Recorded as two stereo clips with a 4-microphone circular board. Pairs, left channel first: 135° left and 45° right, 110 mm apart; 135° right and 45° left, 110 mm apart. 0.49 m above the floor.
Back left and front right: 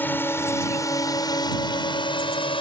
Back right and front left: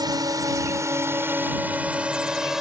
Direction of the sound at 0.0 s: 70° left.